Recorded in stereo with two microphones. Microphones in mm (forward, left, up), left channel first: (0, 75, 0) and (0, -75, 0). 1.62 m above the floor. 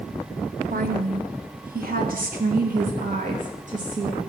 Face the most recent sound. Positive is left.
turn(degrees=-55)  # may be behind; listen again after turning